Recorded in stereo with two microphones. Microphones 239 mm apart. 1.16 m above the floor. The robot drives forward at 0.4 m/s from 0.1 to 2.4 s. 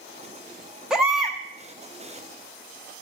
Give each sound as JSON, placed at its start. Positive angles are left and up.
{"t": 0.9, "sound": "a baby crying", "side_deg": 0, "distance_m": 0.8}